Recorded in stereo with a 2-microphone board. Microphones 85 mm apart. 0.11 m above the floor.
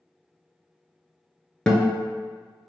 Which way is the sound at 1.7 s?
10° left (ahead or behind).